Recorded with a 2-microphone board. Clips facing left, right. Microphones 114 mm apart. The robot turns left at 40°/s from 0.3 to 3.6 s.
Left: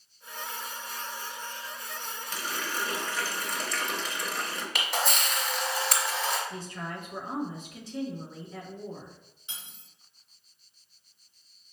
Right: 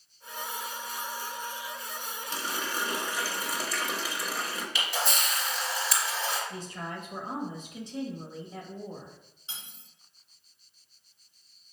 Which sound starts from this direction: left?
A camera shutter, at 4.8 s.